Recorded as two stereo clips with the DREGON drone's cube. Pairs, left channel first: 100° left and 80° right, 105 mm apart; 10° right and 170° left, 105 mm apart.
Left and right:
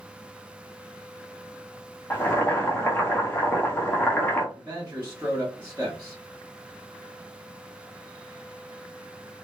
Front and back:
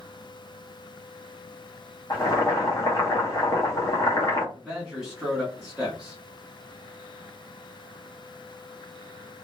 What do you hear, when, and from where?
2.1 s boiling: 35° left, 0.9 m
4.5 s a man speaking: 105° right, 1.2 m